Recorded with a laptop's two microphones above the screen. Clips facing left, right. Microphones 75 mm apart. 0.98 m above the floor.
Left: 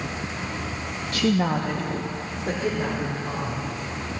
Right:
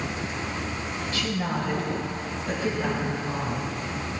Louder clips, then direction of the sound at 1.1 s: Left 7 dB; 60° left (ahead or behind).